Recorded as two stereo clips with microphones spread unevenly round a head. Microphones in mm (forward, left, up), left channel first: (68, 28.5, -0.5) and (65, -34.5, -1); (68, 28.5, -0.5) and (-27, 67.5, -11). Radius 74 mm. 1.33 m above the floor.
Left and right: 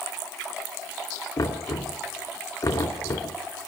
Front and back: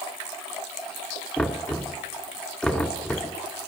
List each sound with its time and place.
1.4 s knocking: 60° left, 2.5 m